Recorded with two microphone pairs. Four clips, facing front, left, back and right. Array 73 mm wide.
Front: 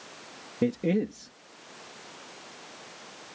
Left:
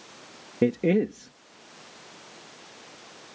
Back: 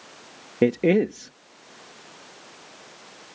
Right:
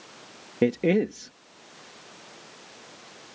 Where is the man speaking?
160° right.